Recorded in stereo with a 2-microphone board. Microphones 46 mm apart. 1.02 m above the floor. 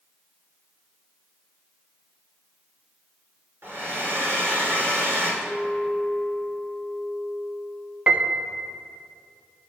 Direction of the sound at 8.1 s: 30° right (ahead or behind).